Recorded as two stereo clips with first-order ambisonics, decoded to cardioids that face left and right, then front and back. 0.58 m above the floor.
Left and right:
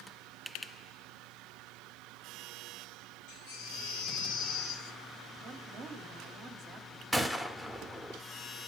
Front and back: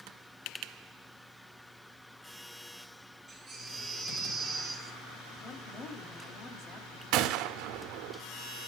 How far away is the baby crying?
About 2 m.